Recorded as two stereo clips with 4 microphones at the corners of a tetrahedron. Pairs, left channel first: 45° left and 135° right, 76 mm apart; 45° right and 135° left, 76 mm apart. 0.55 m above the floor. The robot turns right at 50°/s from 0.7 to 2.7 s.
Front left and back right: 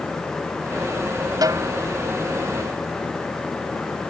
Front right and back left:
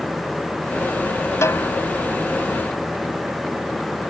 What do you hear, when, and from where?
1.4 s a snare drum: 95° right; by 1.7 s 80° right